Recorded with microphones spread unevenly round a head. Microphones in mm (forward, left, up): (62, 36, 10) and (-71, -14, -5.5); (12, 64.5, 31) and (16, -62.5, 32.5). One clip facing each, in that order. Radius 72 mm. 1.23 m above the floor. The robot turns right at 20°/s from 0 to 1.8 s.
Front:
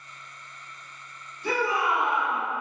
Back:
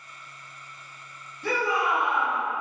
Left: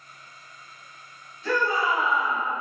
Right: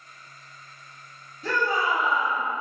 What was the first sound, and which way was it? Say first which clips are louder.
A shout: even, left 1 dB; 140° right.